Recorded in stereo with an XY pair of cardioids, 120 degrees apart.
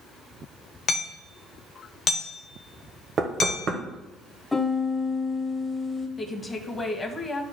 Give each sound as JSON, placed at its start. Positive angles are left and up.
{"t": 0.9, "sound": "hammering", "azimuth_deg": 40, "distance_m": 1.0}
{"t": 3.2, "sound": "knocking", "azimuth_deg": -45, "distance_m": 1.3}
{"t": 4.5, "sound": "a piano", "azimuth_deg": 10, "distance_m": 1.1}
{"t": 6.2, "sound": "a woman speaking", "azimuth_deg": 25, "distance_m": 1.5}